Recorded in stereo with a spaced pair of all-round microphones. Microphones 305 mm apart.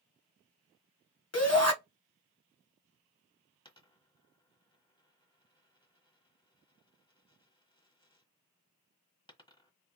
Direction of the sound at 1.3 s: 50° left (ahead or behind).